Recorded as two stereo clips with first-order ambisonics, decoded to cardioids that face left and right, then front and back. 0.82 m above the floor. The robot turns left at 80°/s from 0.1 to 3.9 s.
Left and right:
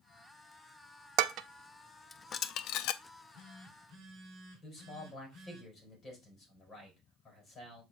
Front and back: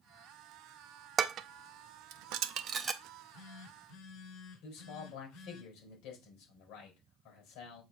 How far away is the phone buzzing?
About 4 m.